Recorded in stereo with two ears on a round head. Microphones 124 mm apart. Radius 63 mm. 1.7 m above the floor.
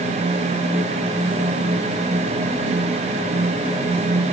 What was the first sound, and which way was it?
Only background noise.